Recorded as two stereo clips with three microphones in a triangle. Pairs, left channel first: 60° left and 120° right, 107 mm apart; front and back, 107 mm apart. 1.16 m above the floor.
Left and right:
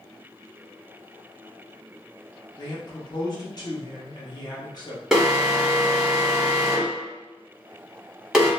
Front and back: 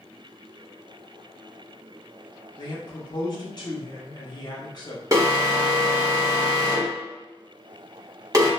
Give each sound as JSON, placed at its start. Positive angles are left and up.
{"t": 2.6, "sound": "a man speaking", "azimuth_deg": 30, "distance_m": 0.9}
{"t": 5.1, "sound": "an alarm", "azimuth_deg": 160, "distance_m": 1.2}